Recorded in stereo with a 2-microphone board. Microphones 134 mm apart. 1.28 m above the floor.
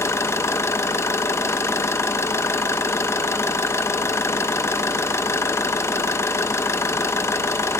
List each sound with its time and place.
0.0 s an engine running: 20° left (ahead or behind), 1.0 m